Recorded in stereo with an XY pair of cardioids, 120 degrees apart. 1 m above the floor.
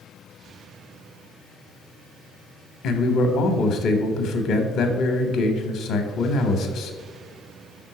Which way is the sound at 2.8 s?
60° left.